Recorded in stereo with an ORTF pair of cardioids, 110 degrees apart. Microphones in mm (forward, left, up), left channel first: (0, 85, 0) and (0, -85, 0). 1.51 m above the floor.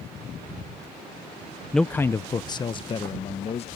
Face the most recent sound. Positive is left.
turn(degrees=35)